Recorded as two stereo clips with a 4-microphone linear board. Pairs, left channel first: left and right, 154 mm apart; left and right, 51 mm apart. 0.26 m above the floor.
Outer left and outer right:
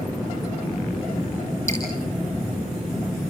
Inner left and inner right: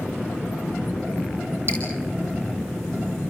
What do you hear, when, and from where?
1.7 s dripping: 50° right (ahead or behind), 6 m